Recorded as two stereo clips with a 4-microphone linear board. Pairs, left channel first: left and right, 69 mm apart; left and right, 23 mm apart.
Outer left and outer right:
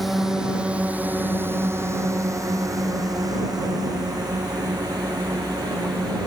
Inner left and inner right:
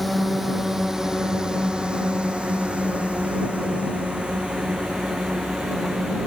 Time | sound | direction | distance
0.0 | a drone | centre (ahead or behind) | ?